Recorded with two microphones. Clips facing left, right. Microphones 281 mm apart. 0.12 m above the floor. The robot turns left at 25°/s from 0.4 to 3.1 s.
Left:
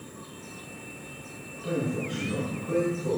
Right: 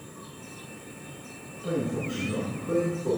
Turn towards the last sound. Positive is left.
turn(degrees=-80)